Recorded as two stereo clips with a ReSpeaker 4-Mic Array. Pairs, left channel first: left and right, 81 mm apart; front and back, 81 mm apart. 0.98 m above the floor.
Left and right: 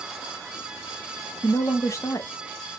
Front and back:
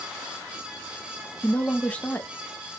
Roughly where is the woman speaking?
Ahead left.